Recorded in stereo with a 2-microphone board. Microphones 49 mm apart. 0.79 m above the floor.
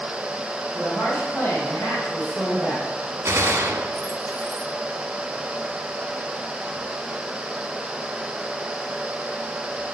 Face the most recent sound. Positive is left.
turn(degrees=-65)  # may be behind; listen again after turning